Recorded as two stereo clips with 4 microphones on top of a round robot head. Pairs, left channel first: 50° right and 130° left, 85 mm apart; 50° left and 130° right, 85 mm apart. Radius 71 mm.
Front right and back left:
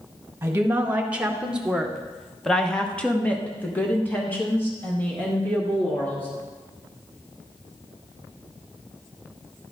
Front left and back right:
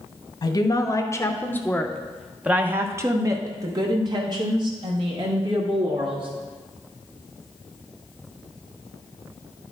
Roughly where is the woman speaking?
Ahead left.